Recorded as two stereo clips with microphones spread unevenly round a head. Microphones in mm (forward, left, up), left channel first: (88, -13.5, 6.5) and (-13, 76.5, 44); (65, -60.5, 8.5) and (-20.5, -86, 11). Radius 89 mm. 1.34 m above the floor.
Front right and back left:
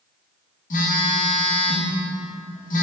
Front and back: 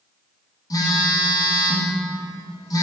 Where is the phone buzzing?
25° right, 3 m.